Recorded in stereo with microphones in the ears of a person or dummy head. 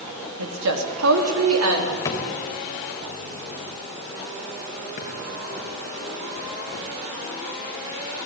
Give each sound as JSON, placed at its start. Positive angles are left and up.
{"t": 0.4, "sound": "a woman speaking", "side_deg": -80, "distance_m": 3.5}
{"t": 2.0, "sound": "a drawer", "side_deg": 20, "distance_m": 3.5}
{"t": 5.0, "sound": "a drawer", "side_deg": 45, "distance_m": 8.0}